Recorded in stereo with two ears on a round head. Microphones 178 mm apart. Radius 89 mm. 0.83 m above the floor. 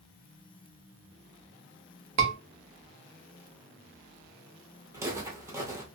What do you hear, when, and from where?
2.2 s a scream: 75° right (ahead or behind), 1.3 m
4.9 s footsteps: 15° right (ahead or behind), 1.0 m